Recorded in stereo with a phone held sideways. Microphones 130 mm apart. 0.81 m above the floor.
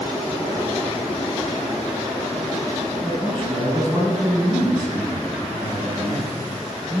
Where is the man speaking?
35° right (ahead or behind), 7 m.